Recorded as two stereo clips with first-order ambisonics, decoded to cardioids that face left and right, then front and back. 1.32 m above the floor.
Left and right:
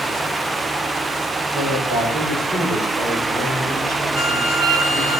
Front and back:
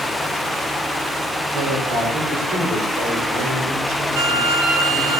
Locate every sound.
1.5 s a man speaking: 165° right, 5.5 m; by 5.1 s 160° right, 7.5 m
4.1 s a violin: 160° right, 2.5 m